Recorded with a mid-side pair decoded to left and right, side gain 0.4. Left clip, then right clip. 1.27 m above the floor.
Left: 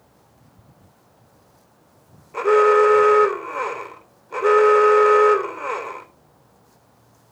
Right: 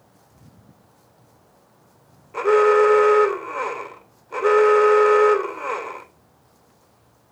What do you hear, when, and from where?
2.3 s an alarm: 5° right, 3 m